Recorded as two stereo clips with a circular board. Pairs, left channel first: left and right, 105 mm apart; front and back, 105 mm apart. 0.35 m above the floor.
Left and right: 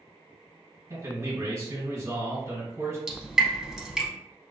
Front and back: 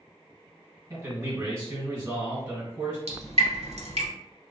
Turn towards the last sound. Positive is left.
turn(degrees=-175)